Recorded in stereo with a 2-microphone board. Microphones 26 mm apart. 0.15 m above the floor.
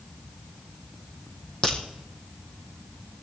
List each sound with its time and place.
1.6 s a crack: 30° left (ahead or behind), 5.5 m